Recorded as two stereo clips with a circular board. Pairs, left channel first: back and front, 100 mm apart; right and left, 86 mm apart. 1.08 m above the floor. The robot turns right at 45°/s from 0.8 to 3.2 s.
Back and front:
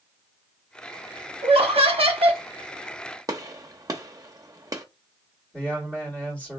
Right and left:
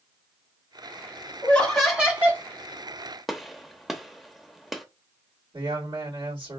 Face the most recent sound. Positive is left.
turn(degrees=105)